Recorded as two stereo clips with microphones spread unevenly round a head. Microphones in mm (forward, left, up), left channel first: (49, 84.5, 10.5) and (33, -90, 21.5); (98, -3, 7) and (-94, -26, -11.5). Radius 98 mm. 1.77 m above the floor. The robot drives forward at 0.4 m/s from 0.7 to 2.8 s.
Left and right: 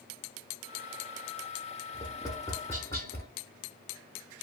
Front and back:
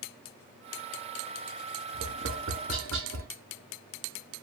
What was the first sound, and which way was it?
Tapping, 155° left.